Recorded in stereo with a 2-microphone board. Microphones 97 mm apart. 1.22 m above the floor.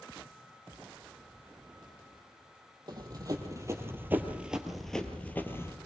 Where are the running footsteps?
45° right (ahead or behind), 2.5 m; by 5.8 s 30° left (ahead or behind), 1.9 m.